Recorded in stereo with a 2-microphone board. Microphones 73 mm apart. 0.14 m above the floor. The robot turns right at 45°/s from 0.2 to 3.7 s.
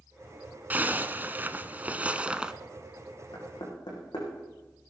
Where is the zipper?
25° right (ahead or behind), 0.6 m; by 2.5 s 15° right (ahead or behind), 0.6 m.